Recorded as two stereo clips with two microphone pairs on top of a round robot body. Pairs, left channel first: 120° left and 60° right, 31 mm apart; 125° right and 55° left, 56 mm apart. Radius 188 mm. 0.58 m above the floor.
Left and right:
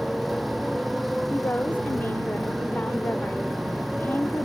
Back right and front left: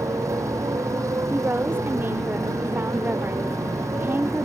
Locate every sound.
0.0 s a motorcycle: 30° left
1.3 s a woman speaking: 105° left